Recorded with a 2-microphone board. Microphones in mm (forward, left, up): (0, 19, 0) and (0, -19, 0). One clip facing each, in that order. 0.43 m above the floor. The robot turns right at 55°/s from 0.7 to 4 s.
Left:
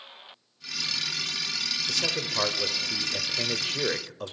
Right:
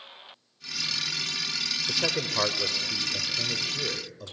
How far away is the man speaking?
About 1.2 m.